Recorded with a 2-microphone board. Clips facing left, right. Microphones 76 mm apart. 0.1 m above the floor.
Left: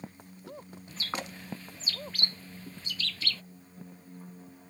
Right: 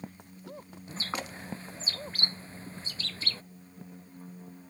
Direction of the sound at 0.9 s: 30° right (ahead or behind).